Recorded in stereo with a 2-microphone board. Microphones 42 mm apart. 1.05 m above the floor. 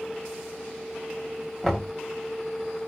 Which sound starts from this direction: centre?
Knocking, at 1.6 s.